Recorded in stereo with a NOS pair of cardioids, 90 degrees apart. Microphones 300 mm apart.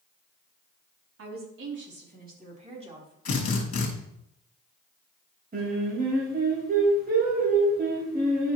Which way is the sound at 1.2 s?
50° right.